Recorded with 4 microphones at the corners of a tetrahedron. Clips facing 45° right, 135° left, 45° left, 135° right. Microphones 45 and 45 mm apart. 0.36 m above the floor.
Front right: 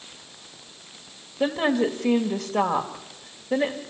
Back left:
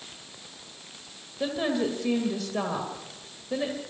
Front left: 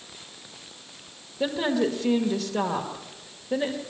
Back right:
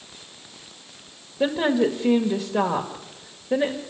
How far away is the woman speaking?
About 1.4 m.